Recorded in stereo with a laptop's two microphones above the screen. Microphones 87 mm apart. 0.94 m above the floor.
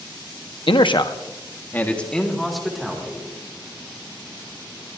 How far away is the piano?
No piano in this recording.